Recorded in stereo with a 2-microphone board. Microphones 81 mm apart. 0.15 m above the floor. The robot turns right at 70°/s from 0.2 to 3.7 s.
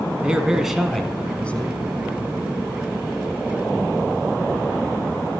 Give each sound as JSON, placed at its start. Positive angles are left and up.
{"t": 0.2, "sound": "a man speaking", "side_deg": -15, "distance_m": 1.5}